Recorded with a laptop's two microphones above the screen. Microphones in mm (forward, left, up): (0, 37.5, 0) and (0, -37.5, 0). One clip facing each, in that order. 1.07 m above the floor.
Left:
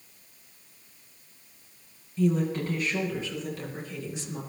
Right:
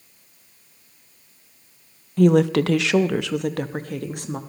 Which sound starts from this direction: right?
A woman speaking, at 2.2 s.